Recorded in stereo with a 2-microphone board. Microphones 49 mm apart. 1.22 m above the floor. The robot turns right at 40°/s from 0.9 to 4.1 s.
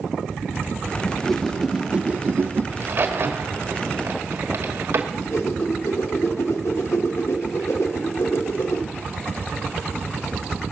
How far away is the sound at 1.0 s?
About 0.5 m.